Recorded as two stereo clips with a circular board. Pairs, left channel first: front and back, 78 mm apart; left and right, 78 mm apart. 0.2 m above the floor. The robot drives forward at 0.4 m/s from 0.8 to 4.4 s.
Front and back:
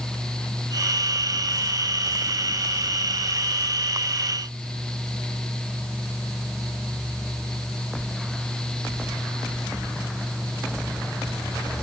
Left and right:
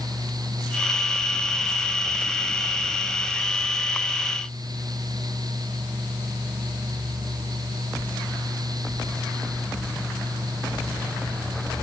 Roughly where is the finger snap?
I don't hear a finger snap.